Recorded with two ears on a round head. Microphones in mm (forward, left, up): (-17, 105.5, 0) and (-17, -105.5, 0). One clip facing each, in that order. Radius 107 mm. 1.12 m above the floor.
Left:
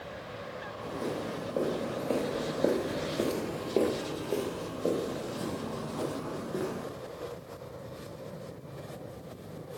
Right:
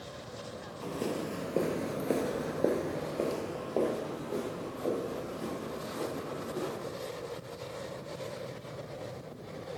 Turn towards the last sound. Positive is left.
turn(degrees=60)  # may be behind; listen again after turning